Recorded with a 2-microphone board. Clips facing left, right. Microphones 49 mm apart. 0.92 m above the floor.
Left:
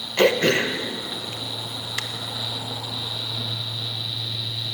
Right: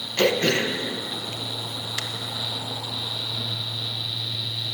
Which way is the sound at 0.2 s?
20° left (ahead or behind).